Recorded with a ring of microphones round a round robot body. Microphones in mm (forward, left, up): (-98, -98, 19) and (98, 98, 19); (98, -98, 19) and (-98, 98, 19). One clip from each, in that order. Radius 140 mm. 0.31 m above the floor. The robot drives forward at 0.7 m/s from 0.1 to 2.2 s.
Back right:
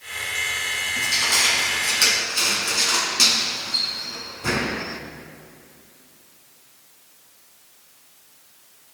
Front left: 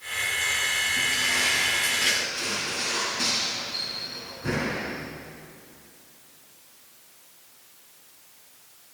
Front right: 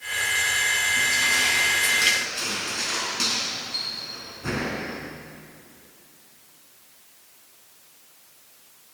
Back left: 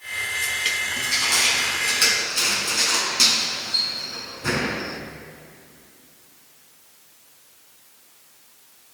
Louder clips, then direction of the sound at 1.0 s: Back right 4 dB, back left 2 dB; 155° right.